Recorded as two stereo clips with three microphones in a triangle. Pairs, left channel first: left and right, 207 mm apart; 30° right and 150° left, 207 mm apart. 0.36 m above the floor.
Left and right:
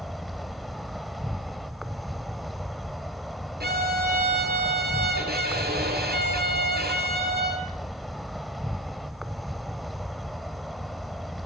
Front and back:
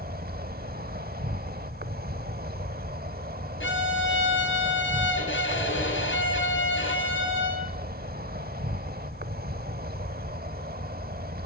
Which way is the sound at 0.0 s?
Straight behind.